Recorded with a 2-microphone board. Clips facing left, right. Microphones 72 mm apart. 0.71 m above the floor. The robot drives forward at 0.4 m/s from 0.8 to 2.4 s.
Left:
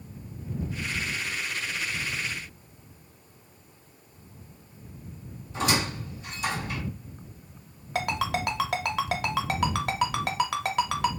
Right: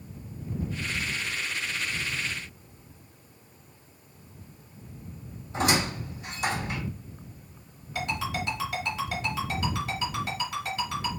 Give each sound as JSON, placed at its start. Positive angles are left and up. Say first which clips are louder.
{"t": 5.5, "sound": "a squeak", "louder": "right 1 dB", "side_deg": -55, "distance_m": 1.6}
{"t": 8.0, "sound": "a ringtone", "louder": "left 3 dB", "side_deg": 70, "distance_m": 0.5}